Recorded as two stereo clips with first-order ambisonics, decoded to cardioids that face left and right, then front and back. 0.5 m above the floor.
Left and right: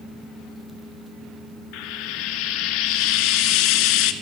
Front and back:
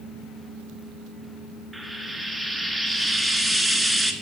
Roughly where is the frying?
Left.